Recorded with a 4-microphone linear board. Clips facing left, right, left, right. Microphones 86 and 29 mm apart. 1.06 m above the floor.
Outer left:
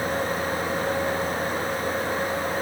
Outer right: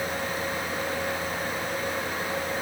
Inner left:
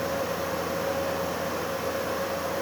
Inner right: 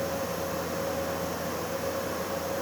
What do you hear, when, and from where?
Only background noise.